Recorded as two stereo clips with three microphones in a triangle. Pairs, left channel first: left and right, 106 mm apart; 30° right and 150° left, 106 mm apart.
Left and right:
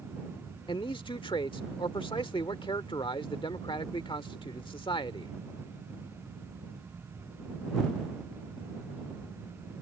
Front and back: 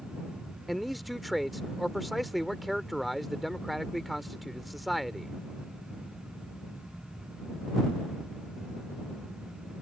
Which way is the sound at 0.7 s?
60° left.